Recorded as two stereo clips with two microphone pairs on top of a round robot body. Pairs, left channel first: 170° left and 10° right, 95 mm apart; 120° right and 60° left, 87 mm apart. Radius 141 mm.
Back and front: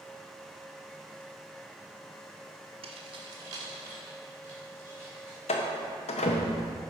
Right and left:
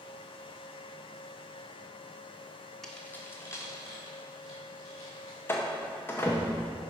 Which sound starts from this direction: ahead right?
Keys jangling, at 2.8 s.